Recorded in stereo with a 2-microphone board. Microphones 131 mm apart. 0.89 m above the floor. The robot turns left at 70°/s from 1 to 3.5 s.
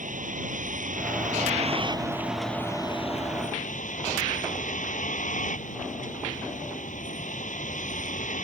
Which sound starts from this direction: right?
A vehicle, at 0.0 s.